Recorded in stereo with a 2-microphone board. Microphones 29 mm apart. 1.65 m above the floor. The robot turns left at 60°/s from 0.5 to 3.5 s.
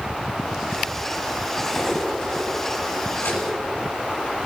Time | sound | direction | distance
1.6 | cutlery clinking | 5° right (ahead or behind) | 7 m